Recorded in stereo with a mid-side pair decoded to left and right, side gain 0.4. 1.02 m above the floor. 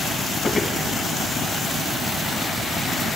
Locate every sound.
0.4 s footsteps: 25° left, 3 m